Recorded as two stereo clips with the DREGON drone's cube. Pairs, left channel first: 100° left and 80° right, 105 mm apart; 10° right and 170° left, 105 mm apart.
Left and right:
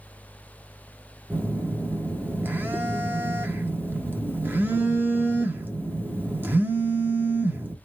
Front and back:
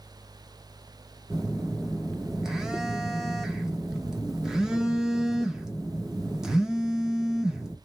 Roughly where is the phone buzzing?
Behind right.